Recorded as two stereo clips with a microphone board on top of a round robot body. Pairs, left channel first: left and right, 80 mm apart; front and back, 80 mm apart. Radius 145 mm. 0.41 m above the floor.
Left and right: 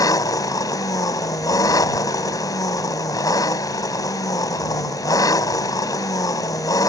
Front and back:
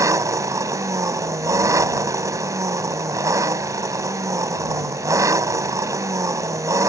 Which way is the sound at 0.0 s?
130° left.